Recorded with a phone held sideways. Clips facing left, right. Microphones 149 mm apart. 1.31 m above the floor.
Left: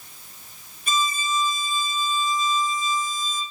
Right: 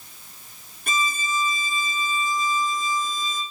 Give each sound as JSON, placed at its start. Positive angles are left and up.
{"t": 0.9, "sound": "a violin", "side_deg": -70, "distance_m": 2.0}